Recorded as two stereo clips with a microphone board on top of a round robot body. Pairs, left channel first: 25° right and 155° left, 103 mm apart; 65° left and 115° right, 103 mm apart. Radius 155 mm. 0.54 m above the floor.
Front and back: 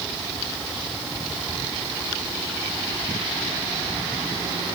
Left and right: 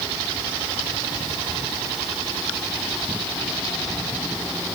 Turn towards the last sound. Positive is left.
No sound to turn to.